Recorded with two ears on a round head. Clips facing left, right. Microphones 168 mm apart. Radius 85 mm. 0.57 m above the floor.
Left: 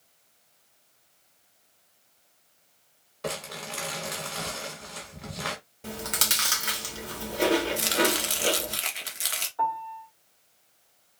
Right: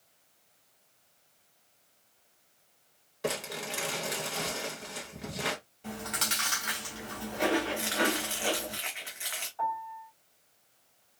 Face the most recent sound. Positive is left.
turn(degrees=60)  # may be behind; listen again after turning